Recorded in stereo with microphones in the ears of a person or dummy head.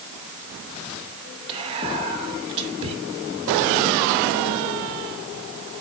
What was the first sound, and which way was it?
Whispering, 30° right (ahead or behind).